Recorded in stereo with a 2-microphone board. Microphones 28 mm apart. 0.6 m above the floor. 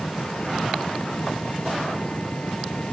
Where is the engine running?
50° left (ahead or behind).